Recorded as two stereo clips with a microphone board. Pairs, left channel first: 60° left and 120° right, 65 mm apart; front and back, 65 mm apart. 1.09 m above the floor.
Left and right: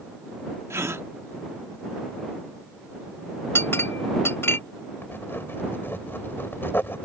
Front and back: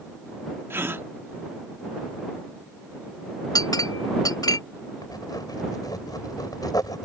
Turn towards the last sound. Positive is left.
turn(degrees=5)